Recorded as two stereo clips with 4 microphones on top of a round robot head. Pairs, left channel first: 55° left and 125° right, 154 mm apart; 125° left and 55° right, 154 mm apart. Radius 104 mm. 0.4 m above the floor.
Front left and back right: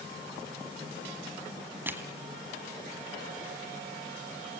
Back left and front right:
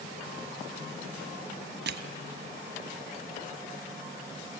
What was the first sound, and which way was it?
Crushing, 45° right.